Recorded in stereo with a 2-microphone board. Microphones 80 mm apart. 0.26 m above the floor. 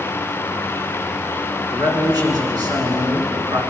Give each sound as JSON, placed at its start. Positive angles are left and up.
{"t": 1.7, "sound": "a man speaking", "side_deg": -55, "distance_m": 3.0}